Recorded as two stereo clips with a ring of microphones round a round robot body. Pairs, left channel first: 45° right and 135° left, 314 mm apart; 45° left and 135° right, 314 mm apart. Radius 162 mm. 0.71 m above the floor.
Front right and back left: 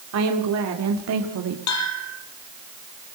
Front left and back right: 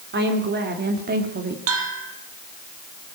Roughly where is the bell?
Right.